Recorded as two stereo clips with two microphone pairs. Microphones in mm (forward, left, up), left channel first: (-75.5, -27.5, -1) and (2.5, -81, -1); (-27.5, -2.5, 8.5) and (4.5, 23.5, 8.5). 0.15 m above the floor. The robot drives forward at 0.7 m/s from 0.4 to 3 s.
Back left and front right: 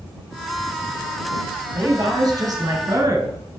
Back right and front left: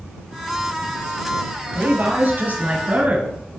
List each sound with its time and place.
1.8 s a woman speaking: straight ahead, 2 m